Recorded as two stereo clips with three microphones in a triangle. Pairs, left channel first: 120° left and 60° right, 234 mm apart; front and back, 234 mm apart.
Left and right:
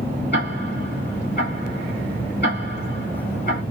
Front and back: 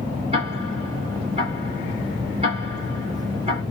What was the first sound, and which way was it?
Ticking, 130° left.